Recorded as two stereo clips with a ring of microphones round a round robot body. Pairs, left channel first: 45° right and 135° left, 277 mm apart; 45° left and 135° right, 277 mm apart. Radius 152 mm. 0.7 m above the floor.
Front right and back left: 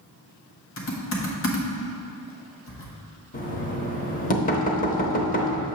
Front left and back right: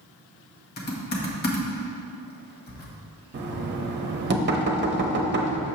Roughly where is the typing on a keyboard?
Ahead.